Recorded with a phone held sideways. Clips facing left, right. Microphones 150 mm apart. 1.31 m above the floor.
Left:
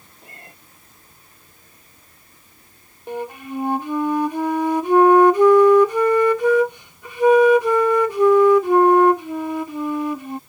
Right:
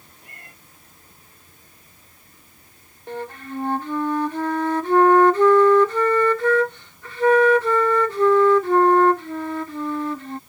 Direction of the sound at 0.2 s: 25° left (ahead or behind).